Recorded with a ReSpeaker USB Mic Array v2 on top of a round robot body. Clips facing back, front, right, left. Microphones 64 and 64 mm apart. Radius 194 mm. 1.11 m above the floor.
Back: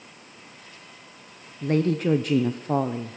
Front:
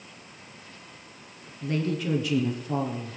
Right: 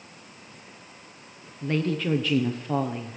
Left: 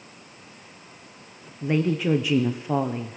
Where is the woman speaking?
165° left, 0.9 m.